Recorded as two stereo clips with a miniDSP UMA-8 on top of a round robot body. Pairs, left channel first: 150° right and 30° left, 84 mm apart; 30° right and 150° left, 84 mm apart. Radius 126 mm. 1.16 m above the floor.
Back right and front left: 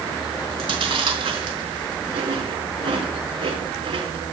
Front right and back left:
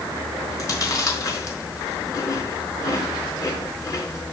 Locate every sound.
0.5 s chewing: 20° left, 4.5 m